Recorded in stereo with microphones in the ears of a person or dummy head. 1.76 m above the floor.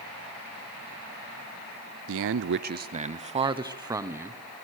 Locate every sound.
2.1 s a man speaking: 70° right (ahead or behind), 0.7 m; by 4.4 s 10° right (ahead or behind), 1.3 m